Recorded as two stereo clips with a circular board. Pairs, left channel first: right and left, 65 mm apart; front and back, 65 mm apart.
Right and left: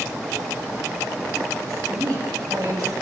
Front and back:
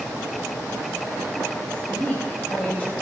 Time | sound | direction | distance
1.7 | a woman speaking | 70° left | 3 m